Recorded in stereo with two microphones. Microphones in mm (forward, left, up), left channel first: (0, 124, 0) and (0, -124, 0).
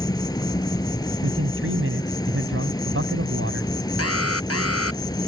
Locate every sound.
0.0 s an insect: 15° left (ahead or behind)
1.2 s a man speaking: 70° right (ahead or behind)
4.0 s an alarm: 85° left